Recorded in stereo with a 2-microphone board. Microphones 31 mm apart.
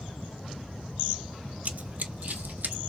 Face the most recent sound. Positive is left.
turn(degrees=-70)  # may be behind; listen again after turning